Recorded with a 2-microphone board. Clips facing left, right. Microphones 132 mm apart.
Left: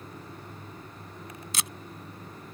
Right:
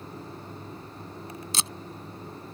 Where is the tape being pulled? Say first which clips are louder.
Right 2 dB; 30° right (ahead or behind).